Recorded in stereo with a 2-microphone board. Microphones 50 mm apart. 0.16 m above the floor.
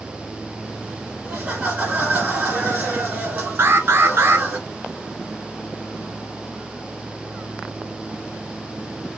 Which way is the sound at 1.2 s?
35° right (ahead or behind).